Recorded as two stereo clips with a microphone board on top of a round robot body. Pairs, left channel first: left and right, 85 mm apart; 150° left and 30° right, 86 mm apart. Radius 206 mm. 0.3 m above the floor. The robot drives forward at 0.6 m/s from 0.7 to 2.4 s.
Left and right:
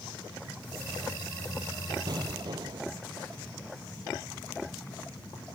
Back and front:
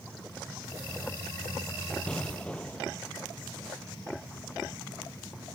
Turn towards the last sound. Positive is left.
turn(degrees=-130)